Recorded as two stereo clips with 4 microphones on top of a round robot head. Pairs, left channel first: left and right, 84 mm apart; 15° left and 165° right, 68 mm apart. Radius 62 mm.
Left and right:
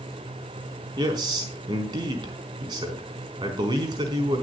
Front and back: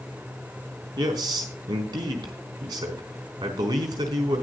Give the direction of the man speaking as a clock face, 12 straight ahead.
4 o'clock.